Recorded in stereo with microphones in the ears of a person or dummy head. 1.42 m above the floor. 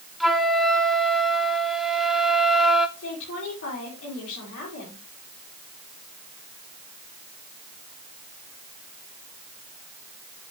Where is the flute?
Centre (ahead or behind), 0.9 m.